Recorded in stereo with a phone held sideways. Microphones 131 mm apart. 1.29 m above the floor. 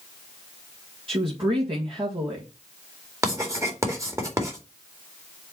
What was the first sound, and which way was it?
A woman speaking, 45° right (ahead or behind).